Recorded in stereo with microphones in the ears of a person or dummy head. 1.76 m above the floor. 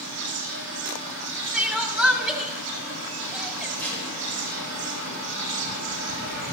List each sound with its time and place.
0.0 s an insect: 55° right (ahead or behind), 2.5 m
1.5 s crying: 5° right (ahead or behind), 1.7 m
3.8 s tape being pulled: 15° left (ahead or behind), 2.5 m